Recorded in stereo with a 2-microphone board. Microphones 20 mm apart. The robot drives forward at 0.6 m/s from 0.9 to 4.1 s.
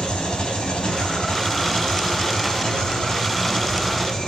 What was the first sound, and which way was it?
An engine running, 50° left (ahead or behind).